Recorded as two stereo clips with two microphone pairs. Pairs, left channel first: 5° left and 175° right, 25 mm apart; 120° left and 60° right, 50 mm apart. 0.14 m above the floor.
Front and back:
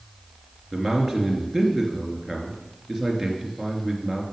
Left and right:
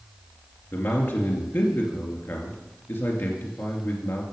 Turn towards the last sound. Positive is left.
turn(degrees=95)